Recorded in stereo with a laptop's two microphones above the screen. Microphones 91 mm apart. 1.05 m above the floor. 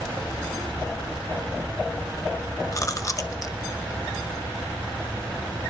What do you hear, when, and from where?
2.7 s chewing: 40° left (ahead or behind), 0.5 m